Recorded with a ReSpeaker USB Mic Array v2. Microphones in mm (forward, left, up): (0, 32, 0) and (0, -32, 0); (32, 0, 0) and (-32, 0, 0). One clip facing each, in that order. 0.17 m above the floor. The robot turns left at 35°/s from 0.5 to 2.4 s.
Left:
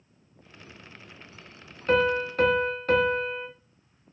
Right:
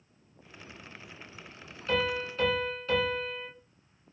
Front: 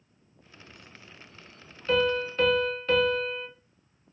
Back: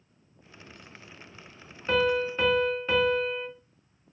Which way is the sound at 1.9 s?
125° left.